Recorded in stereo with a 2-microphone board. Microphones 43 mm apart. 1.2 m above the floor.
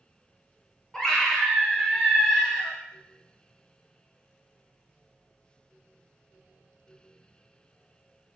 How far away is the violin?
No violin in this recording.